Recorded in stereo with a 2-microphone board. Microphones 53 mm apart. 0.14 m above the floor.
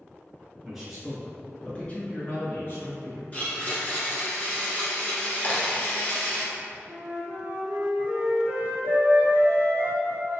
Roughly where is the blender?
Left.